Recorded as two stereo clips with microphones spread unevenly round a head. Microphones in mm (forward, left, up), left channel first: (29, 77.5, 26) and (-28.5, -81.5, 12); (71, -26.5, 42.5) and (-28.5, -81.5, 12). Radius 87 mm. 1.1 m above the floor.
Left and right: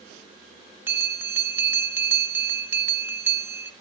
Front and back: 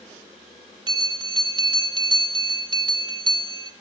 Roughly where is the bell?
Behind.